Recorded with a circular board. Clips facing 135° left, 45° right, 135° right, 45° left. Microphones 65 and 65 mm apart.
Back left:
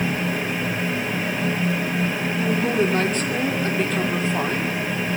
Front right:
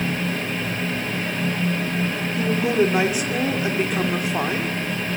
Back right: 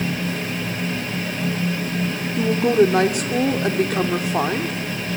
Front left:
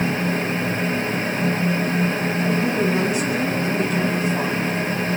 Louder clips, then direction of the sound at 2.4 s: Front right 2 dB, back right 8 dB; 125° right.